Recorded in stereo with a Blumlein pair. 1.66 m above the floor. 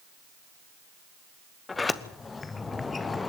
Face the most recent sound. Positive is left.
turn(degrees=15)